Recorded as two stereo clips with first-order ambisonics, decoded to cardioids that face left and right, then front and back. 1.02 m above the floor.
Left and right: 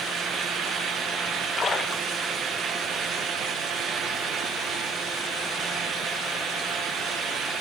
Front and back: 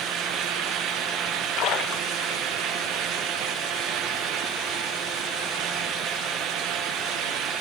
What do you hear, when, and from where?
1.6 s a splash: 25° left, 1.2 m